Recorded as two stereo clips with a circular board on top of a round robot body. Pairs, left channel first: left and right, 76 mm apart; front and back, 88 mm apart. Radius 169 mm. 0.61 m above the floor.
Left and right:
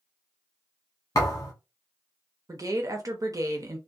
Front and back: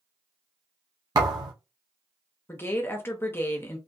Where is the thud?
140° left, 0.7 m.